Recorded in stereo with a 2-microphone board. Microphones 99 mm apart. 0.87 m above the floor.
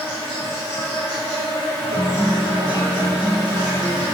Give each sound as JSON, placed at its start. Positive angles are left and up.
{"t": 0.0, "sound": "an insect", "side_deg": 25, "distance_m": 1.1}
{"t": 1.9, "sound": "a guitar", "side_deg": 45, "distance_m": 1.2}